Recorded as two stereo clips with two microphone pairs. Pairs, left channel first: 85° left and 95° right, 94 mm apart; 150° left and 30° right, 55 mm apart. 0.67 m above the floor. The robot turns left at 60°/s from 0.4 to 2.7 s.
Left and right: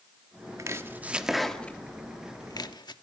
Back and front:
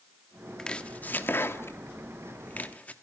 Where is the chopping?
140° right, 1.2 m; by 2.9 s 95° left, 1.2 m.